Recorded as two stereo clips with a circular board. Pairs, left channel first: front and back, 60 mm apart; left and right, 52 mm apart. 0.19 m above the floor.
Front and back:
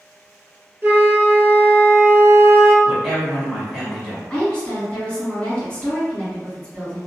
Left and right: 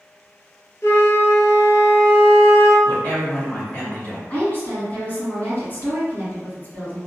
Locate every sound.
0.8 s a flute: 125° left, 0.7 m
2.9 s a woman speaking: 95° left, 1.5 m
4.3 s a woman speaking: 70° left, 1.9 m